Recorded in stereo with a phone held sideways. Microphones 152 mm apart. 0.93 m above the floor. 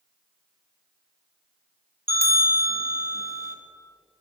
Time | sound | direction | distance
2.1 | a bell | 70° right (ahead or behind) | 0.9 m